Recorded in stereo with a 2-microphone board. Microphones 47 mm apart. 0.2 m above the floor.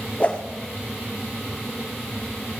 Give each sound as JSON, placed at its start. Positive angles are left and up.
{"t": 0.2, "sound": "a whoosh", "side_deg": 30, "distance_m": 2.0}